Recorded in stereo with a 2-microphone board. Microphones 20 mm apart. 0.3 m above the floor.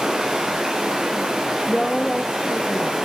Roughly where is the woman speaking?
Left.